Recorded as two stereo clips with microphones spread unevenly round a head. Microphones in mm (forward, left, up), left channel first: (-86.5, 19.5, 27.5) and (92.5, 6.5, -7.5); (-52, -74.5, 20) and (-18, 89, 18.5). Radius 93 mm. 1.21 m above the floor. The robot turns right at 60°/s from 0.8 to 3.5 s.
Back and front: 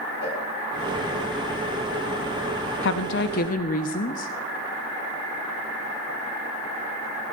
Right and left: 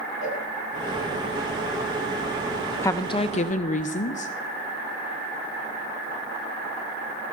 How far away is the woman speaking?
About 0.6 m.